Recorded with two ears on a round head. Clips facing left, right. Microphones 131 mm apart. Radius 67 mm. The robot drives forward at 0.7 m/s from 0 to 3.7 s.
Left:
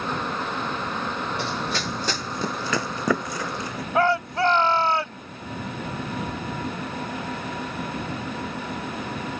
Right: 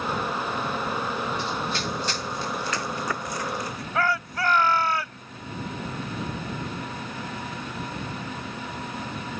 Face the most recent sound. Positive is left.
turn(degrees=25)  # may be behind; listen again after turning